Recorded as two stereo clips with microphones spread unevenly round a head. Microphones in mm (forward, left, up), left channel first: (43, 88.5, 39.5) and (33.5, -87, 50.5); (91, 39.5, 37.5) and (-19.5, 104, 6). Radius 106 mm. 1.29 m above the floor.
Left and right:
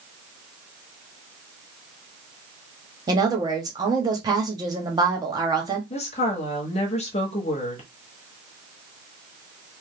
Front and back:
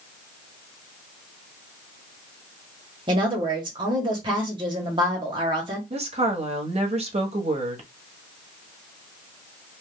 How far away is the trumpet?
No trumpet in this recording.